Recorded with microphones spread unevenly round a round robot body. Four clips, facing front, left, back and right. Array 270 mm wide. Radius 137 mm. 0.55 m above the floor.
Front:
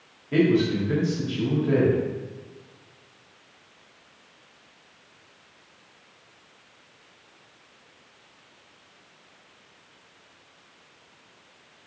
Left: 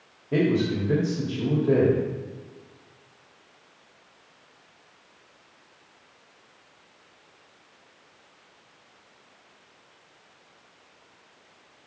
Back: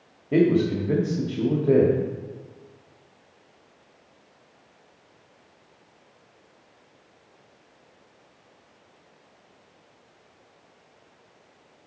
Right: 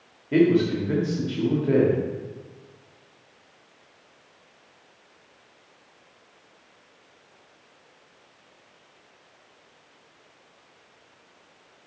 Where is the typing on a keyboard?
No typing on a keyboard in this recording.